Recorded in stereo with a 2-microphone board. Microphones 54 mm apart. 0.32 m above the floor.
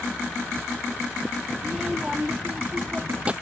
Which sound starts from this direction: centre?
A child speaking, at 1.6 s.